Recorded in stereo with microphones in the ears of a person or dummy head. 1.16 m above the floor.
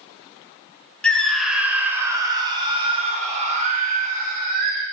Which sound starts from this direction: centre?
A scream, at 1.0 s.